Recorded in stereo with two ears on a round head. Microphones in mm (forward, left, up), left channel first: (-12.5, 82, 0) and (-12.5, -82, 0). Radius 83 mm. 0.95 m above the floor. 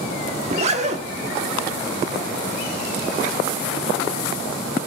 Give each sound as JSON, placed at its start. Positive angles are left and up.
{"t": 0.4, "sound": "a zipper", "side_deg": -40, "distance_m": 1.2}